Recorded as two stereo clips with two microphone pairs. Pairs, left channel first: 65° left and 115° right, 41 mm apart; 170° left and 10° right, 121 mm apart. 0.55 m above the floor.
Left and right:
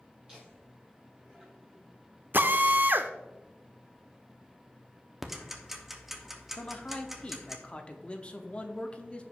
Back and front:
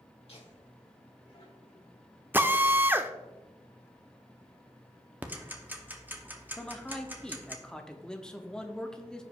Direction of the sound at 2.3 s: 75° right.